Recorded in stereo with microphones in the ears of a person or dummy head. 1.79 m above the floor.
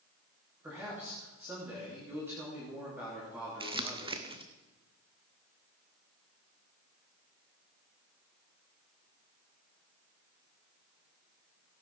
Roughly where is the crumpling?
Right.